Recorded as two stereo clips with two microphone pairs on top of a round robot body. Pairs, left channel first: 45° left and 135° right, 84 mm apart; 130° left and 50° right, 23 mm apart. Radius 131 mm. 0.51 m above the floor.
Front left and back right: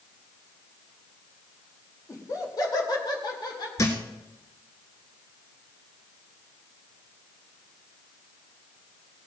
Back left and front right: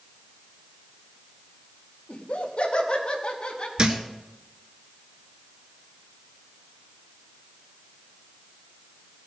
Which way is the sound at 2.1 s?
105° left.